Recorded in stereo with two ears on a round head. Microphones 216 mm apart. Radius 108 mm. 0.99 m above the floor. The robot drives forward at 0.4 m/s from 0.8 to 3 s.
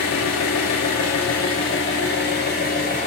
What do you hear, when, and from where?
0.0 s an engine running: 70° left (ahead or behind), 0.8 m; by 3.1 s 35° left (ahead or behind), 1.3 m